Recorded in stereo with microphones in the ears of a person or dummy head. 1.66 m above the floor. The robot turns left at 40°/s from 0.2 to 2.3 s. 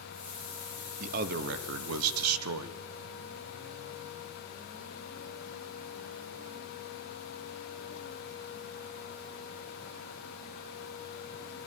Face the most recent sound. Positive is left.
turn(degrees=-90)